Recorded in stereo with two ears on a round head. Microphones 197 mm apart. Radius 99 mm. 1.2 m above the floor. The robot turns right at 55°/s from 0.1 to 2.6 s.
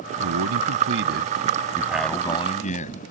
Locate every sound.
0.2 s a man speaking: 100° right; by 3.0 s 35° left